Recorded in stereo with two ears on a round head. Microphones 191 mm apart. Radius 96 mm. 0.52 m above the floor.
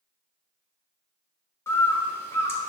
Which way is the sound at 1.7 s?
10° left (ahead or behind).